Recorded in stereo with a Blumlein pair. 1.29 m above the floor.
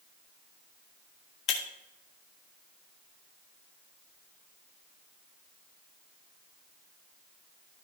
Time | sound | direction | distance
1.5 | breaking glass | 35° left | 1.3 m